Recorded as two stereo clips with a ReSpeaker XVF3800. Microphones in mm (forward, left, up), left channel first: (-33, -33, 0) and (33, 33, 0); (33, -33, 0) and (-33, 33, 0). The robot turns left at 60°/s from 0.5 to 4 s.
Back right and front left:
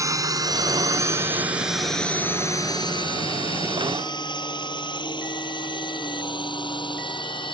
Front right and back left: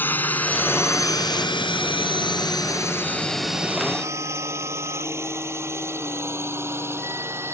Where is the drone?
15° left; by 7.5 s 160° right.